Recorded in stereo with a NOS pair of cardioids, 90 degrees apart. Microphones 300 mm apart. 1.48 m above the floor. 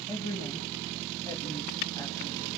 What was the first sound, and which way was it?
A woman speaking, 10° left.